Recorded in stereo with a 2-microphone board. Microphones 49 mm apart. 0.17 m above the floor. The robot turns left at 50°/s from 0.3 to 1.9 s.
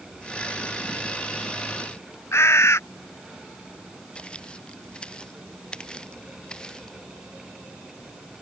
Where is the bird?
70° left (ahead or behind).